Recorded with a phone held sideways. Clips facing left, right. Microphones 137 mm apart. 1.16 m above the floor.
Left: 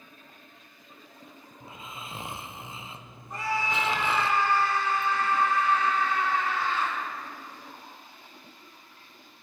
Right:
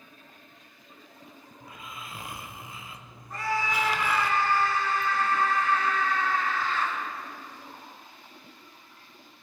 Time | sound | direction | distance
1.6 | snoring | 25° left (ahead or behind) | 0.6 m
3.3 | a scream | 15° left (ahead or behind) | 3.5 m